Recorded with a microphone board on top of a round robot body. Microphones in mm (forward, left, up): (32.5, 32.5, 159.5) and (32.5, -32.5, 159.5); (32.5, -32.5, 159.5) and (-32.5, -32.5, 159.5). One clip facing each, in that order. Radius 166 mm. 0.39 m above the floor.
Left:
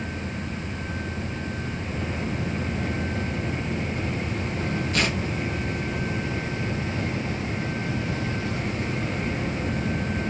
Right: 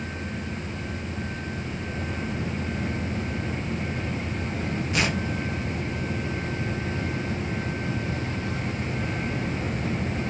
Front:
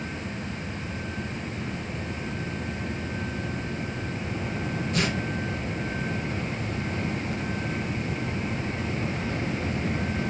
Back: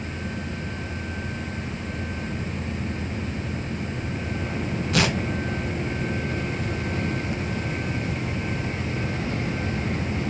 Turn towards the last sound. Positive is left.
turn(degrees=-170)